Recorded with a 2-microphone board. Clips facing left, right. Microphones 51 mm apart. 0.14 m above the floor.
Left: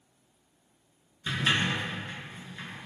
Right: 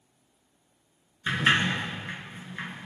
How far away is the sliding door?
About 1.9 m.